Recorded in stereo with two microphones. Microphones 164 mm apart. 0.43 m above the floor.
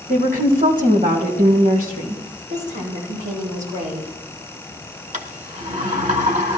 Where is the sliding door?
45° right (ahead or behind), 1.4 m.